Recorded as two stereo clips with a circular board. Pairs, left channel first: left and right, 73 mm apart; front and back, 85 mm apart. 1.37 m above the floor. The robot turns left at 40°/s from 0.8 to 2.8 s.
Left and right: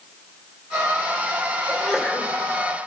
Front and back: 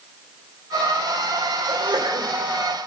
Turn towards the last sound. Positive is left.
turn(degrees=125)